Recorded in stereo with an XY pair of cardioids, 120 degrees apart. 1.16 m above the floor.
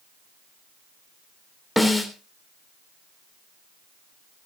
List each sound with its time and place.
1.8 s a snare drum: straight ahead, 3 m